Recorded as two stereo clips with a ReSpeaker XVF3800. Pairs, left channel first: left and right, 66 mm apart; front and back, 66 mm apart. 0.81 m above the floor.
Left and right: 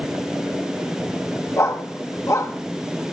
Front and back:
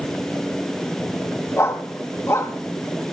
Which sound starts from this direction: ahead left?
A dog barking, at 1.6 s.